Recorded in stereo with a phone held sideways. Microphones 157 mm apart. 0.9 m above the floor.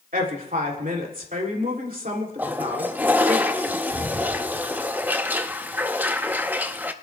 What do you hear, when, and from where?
0.1 s a woman speaking: 60° right (ahead or behind), 2.5 m
2.4 s a toilet flushing: 10° right (ahead or behind), 0.6 m